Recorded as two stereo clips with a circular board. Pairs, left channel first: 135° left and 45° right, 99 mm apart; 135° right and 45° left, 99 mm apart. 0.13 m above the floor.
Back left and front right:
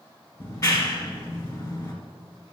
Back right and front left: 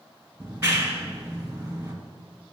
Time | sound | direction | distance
0.4 | a clap | 105° left | 1.6 m